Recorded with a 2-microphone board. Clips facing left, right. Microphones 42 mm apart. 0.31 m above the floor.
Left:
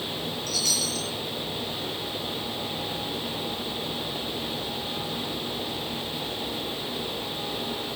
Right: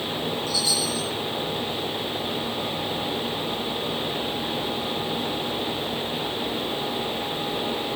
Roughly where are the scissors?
No scissors in this recording.